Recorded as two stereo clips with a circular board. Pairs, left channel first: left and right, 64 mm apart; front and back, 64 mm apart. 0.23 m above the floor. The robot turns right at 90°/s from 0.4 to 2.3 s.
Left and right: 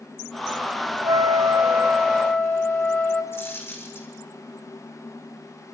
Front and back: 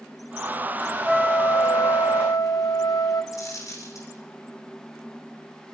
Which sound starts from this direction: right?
A flute, at 1.0 s.